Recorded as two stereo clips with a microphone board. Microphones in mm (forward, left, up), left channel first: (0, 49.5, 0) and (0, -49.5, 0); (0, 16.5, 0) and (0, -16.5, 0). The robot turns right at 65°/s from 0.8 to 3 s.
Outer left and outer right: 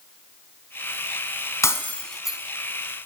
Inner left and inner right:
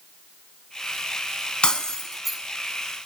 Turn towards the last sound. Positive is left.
turn(degrees=-130)